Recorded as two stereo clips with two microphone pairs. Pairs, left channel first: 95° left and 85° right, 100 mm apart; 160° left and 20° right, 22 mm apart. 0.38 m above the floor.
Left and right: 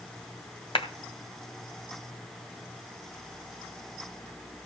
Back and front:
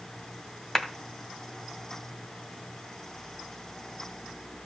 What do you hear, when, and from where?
0.8 s a clap: 90° left, 2 m